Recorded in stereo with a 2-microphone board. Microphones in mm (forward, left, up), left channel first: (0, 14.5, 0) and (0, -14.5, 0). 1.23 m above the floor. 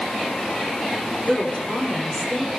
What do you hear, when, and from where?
1.2 s a woman speaking: 40° left (ahead or behind), 4.5 m; by 2.5 s 45° left (ahead or behind), 5.5 m